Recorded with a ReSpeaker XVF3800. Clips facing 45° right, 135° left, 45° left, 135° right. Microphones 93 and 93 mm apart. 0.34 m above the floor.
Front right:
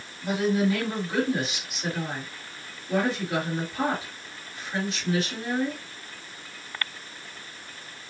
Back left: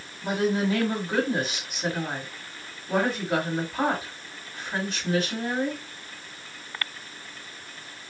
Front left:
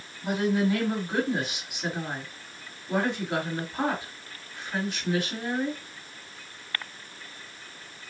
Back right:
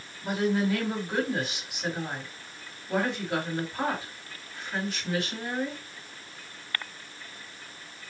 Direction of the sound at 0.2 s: 125° left.